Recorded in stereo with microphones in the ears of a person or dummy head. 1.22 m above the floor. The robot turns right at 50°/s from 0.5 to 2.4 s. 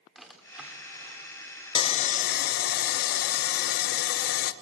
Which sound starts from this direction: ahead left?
Sawing, at 1.8 s.